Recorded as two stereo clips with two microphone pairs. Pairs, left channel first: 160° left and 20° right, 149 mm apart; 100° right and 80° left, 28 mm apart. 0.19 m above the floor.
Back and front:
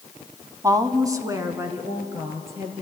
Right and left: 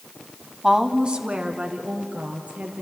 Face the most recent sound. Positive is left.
turn(degrees=50)